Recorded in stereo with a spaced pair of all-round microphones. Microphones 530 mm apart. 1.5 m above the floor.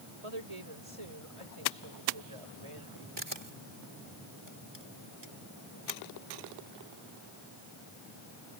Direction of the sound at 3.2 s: 50° right (ahead or behind).